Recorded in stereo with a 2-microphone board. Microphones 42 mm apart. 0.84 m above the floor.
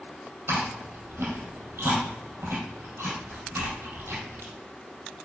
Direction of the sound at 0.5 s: 70° right (ahead or behind).